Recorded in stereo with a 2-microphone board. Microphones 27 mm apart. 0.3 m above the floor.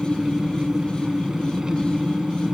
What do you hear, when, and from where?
0.0 s an engine running: 30° right (ahead or behind), 1.2 m